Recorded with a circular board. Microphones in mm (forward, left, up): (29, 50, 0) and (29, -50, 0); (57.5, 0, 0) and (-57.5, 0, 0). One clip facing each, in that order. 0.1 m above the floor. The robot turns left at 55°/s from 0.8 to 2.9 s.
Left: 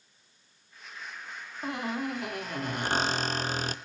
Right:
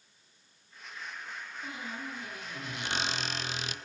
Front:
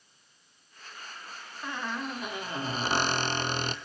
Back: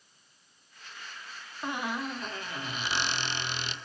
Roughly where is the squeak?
Behind left.